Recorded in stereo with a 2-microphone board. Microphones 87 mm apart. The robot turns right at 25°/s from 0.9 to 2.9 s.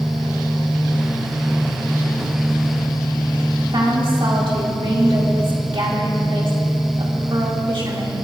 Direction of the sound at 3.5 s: 70° right (ahead or behind).